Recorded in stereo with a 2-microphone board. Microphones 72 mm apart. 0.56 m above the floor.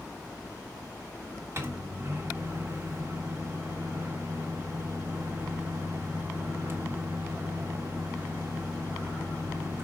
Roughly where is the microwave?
Right.